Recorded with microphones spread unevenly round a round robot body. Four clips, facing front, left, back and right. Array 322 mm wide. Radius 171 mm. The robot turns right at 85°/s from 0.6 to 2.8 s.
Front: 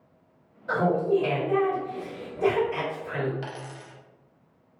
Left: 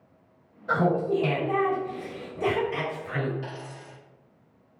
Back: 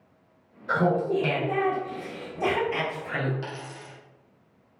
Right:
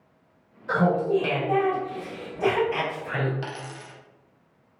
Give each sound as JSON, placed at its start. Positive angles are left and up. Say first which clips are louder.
{"t": 0.7, "sound": "laughter", "louder": "right 2 dB, front 1 dB", "azimuth_deg": 40, "distance_m": 1.8}
{"t": 3.4, "sound": "a dropped coin", "louder": "right 3 dB, even", "azimuth_deg": -85, "distance_m": 0.5}